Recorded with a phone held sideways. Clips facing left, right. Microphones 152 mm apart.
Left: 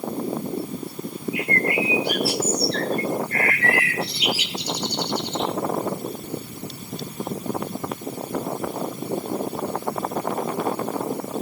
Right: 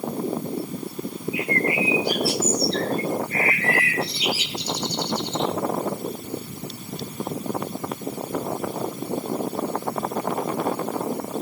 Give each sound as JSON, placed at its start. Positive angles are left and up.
{"t": 1.3, "sound": "a bird", "side_deg": 70, "distance_m": 2.5}